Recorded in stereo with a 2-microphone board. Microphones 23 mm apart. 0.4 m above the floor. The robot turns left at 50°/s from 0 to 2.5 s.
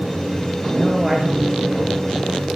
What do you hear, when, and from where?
0.8 s a man speaking: 165° right, 9 m; by 2.3 s 115° left, 9 m